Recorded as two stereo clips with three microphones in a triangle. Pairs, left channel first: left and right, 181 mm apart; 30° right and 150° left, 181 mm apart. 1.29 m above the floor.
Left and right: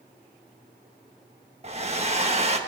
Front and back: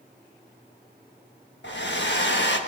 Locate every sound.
1.6 s a hair dryer: 35° right, 1.5 m